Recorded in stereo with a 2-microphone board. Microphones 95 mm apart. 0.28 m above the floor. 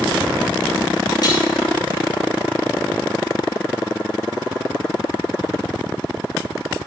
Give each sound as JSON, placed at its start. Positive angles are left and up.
{"t": 1.2, "sound": "a snare drum", "side_deg": 50, "distance_m": 8.5}